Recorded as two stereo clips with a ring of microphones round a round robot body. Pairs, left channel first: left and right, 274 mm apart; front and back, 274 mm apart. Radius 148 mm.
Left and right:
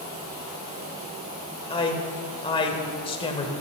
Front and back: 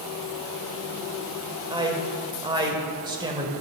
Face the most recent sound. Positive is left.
turn(degrees=130)